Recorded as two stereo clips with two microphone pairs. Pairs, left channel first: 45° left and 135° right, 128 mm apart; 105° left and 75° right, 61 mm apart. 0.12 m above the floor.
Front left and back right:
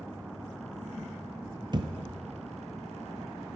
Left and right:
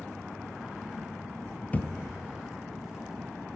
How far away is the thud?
About 0.8 m.